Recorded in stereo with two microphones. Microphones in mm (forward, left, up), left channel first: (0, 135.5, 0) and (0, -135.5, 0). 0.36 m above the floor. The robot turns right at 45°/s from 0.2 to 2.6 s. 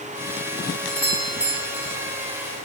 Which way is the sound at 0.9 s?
160° left.